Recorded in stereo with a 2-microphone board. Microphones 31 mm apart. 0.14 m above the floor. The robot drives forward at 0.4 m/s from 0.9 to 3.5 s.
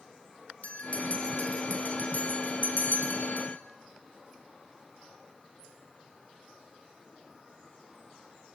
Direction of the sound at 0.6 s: 45° left (ahead or behind).